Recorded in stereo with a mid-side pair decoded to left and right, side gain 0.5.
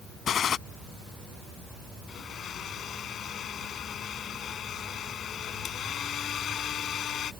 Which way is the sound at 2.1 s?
55° left.